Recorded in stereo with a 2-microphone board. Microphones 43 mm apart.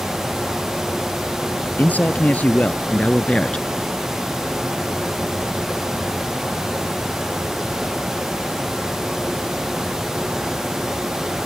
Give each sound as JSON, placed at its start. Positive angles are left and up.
{"t": 1.8, "sound": "a man speaking", "side_deg": 40}